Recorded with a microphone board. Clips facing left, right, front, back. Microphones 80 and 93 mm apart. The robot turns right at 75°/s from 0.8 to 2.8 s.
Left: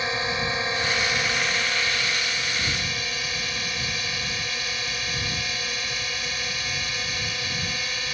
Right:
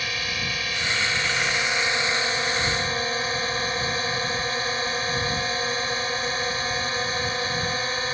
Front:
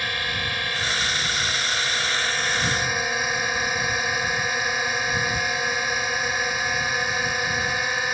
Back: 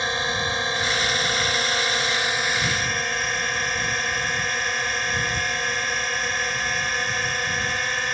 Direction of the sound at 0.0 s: 135° left.